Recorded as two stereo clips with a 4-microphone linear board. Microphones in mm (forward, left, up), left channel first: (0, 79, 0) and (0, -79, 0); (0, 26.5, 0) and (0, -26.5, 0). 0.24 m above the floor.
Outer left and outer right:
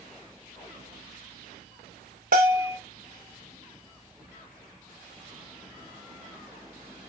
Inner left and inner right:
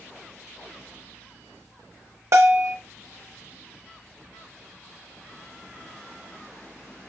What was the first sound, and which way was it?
A bell, 60° right (ahead or behind).